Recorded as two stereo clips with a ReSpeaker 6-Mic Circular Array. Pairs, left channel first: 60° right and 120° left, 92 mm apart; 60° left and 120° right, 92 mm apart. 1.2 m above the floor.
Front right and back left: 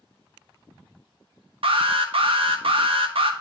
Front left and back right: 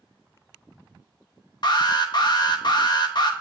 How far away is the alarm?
About 1.0 m.